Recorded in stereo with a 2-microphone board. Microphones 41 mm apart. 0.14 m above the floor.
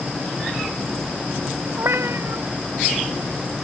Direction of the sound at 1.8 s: 70° right (ahead or behind).